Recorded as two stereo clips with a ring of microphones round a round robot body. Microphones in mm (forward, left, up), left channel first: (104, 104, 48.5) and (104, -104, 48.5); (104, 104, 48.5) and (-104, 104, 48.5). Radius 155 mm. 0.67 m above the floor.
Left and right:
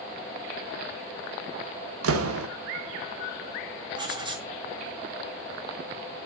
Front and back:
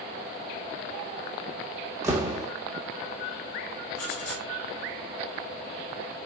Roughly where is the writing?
Ahead.